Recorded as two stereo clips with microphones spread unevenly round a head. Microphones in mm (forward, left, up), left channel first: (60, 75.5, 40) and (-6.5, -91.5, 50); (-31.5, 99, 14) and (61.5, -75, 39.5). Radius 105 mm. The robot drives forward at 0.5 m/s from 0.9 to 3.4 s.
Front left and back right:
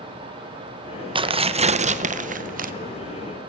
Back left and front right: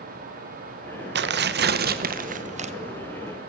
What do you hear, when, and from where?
1.1 s tearing paper: 55° right, 1.2 m; by 2.7 s 115° right, 1.1 m